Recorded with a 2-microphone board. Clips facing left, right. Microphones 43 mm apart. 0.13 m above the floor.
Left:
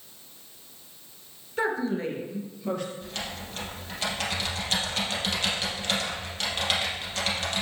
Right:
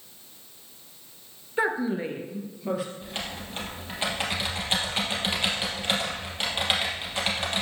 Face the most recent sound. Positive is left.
turn(degrees=-25)  # may be behind; listen again after turning